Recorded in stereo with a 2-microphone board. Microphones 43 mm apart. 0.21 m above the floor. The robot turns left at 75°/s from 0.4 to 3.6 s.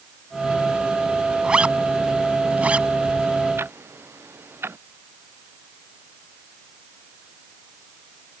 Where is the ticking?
65° right (ahead or behind); by 4.8 s 70° right (ahead or behind).